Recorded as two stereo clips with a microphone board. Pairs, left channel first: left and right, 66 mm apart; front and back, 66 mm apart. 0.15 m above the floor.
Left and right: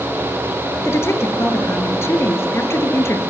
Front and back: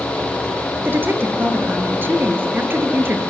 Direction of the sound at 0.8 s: 130° left.